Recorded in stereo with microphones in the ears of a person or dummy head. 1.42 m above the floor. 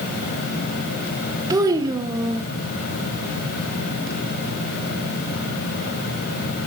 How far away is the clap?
I don't hear a clap.